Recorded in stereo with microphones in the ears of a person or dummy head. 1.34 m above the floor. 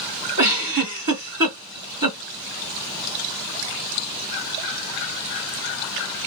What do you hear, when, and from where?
0.4 s a giggle: 45° right (ahead or behind), 1.9 m